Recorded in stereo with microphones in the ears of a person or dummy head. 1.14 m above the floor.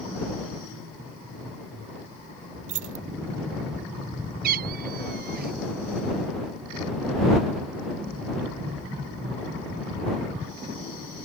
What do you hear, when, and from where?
2.7 s keys jangling: 45° right (ahead or behind)
4.4 s a cat meowing: 55° right (ahead or behind)